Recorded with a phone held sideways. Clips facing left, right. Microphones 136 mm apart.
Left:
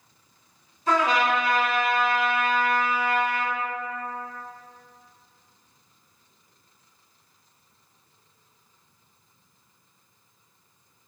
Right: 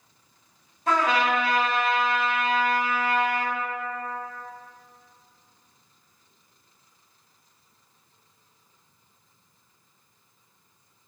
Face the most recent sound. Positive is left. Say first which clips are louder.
# left 1 dB
turn(degrees=-65)  # may be behind; listen again after turning